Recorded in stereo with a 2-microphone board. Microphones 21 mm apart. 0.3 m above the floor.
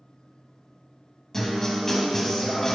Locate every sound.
1.3 s a guitar: 20° left (ahead or behind), 0.9 m